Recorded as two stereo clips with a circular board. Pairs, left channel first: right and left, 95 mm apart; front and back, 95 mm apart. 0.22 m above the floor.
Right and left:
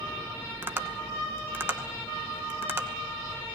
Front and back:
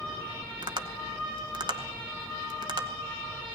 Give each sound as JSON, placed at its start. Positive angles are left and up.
{"t": 0.6, "sound": "tapping", "azimuth_deg": 155, "distance_m": 1.1}